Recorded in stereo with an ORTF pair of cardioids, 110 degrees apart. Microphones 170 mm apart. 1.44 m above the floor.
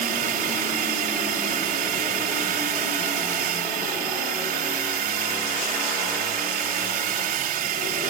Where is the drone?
65° right.